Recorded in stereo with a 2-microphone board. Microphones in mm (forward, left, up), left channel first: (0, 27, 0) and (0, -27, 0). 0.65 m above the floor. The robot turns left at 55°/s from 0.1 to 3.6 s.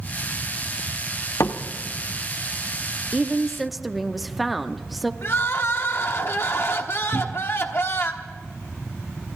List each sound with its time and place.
1.4 s a door slam: 70° left (ahead or behind), 0.9 m
3.1 s a woman speaking: 20° right (ahead or behind), 0.8 m; by 5.1 s centre (ahead or behind), 0.8 m
5.2 s crying: 50° left (ahead or behind), 1.2 m
7.1 s a cupboard door: centre (ahead or behind), 0.7 m